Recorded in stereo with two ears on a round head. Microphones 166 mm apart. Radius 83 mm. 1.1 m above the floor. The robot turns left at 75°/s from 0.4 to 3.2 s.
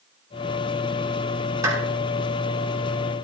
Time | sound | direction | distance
1.6 | a clap | 20° right (ahead or behind) | 6.5 m